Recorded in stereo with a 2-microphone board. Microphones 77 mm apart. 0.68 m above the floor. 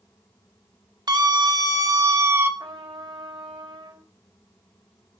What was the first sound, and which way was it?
A scream, 65° right (ahead or behind).